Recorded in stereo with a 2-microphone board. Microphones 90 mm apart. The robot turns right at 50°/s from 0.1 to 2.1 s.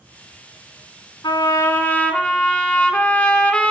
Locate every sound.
1.2 s a trumpet: 125° left, 0.9 m; by 3.7 s 165° left, 0.9 m